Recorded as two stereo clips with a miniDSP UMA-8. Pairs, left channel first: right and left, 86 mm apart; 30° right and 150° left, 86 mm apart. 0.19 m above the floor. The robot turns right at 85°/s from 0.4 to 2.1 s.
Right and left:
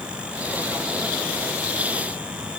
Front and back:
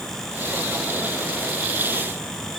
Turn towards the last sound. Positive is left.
No sound to turn to.